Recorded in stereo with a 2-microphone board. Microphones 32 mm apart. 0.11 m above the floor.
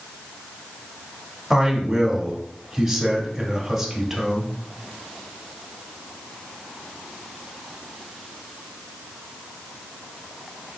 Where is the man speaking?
5° right (ahead or behind), 1.2 m.